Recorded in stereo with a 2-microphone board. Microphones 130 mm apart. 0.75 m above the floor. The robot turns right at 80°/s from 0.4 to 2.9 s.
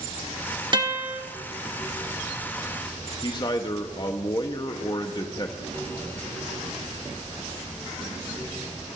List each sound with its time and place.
0.7 s a guitar: 50° right, 1.4 m; by 1.2 s 10° right, 1.4 m
3.2 s a man speaking: 35° left (ahead or behind), 0.9 m